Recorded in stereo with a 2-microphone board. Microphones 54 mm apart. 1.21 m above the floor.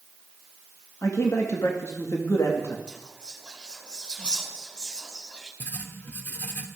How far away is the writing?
About 1.4 m.